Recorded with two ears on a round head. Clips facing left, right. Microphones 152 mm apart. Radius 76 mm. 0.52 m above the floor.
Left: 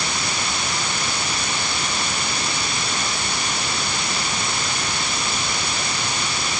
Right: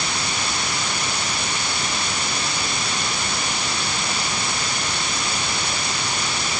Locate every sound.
Only background noise.